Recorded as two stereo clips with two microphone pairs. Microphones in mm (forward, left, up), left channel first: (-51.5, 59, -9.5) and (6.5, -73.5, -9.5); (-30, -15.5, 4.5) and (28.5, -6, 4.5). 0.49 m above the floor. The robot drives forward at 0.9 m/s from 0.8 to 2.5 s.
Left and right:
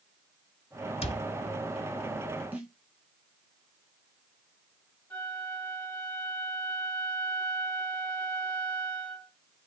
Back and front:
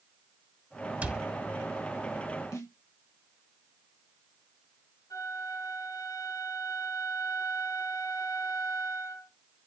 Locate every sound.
1.0 s a cupboard door: 70° left, 1.1 m; by 1.2 s 85° left, 1.1 m
2.5 s a snare drum: 145° right, 3.5 m
5.1 s a flute: 170° right, 3 m